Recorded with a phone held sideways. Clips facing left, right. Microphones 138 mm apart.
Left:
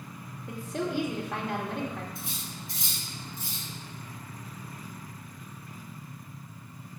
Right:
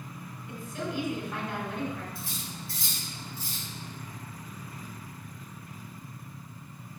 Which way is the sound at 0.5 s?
80° left.